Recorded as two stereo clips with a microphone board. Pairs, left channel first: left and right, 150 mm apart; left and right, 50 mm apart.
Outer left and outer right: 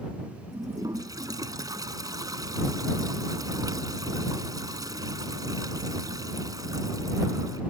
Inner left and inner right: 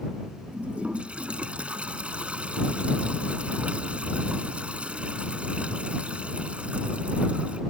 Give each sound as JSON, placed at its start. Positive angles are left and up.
{"t": 0.5, "sound": "a toilet flushing", "side_deg": -25}